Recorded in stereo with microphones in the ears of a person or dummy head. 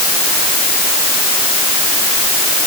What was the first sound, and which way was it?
Only background noise.